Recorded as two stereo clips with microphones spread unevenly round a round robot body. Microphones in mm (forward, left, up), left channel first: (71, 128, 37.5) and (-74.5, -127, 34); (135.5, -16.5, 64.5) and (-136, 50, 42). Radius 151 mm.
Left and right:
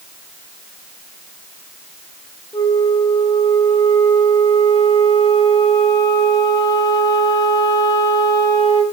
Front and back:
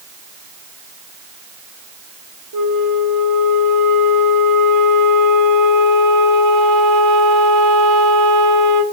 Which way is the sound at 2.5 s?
140° left.